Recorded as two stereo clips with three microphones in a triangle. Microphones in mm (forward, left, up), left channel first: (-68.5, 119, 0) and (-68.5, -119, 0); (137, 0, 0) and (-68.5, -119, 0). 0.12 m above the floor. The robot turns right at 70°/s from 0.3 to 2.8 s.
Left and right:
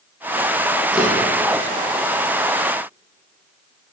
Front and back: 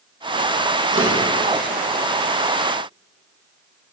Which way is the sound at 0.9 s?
Straight behind.